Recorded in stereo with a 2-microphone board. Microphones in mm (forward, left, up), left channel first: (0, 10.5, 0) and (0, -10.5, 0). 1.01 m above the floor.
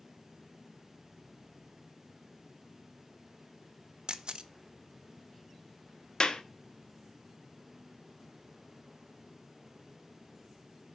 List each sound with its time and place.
4.1 s a camera shutter: 50° right (ahead or behind), 0.6 m
6.2 s a clap: 50° left (ahead or behind), 0.8 m